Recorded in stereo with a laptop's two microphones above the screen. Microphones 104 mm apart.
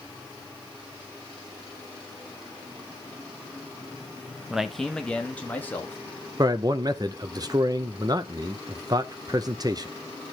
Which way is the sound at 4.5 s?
5° right (ahead or behind).